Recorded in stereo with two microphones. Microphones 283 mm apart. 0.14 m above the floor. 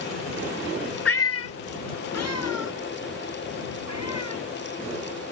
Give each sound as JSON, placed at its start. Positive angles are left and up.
{"t": 1.1, "sound": "a cat meowing", "side_deg": 50}